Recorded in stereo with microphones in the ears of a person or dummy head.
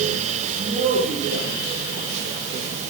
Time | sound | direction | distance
0.6 | a man speaking | 30° right (ahead or behind) | 2.5 m